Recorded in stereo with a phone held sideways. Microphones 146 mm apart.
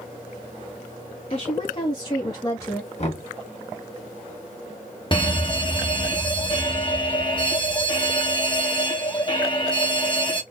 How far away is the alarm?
About 1.2 m.